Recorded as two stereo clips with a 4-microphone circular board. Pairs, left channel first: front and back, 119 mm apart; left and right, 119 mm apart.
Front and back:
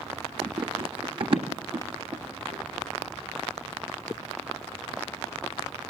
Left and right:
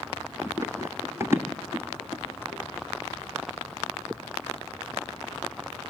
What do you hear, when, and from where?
0.4 s running footsteps: 150° right, 1.0 m; by 2.6 s 160° right, 2 m